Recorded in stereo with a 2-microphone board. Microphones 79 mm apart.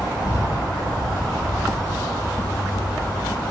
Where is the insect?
60° left (ahead or behind), 1.7 m.